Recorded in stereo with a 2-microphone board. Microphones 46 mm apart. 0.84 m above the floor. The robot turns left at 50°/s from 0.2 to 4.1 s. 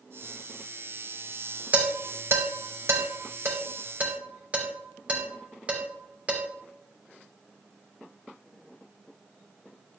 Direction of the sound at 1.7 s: 35° right (ahead or behind).